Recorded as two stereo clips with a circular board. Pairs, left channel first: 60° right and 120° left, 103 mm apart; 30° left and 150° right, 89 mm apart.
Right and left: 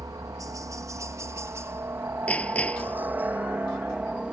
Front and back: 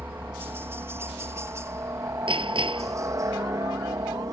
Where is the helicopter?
155° left; by 4.3 s 165° right.